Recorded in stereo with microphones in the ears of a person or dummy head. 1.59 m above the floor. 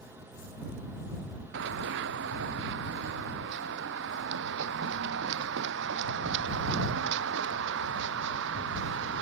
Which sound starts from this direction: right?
Running footsteps, at 1.5 s.